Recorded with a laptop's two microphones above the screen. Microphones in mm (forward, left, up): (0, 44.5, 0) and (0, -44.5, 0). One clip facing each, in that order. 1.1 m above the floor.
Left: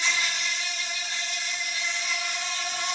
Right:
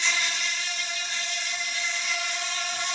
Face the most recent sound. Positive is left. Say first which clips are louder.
# even
turn(degrees=40)  # may be behind; listen again after turning